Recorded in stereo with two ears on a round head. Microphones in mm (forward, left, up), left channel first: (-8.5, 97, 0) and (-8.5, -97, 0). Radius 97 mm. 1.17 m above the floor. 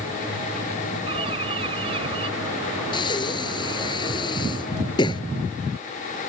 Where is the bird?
25° right (ahead or behind).